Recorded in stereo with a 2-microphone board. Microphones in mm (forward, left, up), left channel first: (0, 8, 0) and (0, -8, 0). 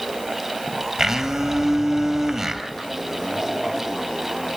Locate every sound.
1.0 s a blender: 40° right (ahead or behind), 3.5 m